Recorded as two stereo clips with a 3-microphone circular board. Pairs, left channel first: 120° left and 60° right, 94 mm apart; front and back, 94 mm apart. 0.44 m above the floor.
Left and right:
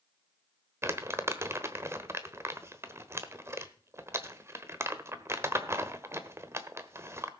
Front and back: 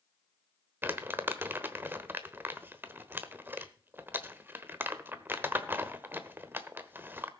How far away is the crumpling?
About 1.1 m.